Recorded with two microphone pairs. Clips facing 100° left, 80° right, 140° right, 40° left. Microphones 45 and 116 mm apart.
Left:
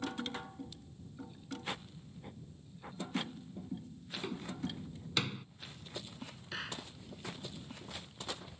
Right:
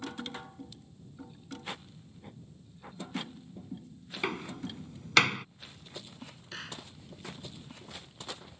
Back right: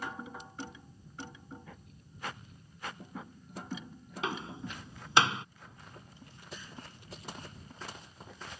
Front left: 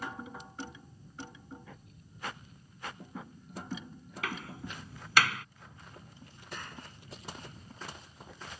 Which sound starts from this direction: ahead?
A clap, at 6.5 s.